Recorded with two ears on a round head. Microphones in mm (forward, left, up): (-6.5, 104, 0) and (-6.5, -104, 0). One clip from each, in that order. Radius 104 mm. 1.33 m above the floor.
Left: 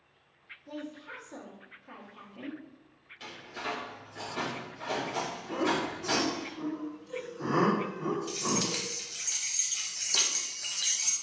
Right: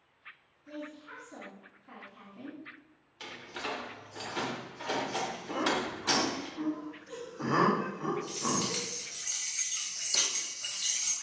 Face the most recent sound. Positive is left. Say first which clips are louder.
# left 2 dB
turn(degrees=5)  # may be behind; listen again after turning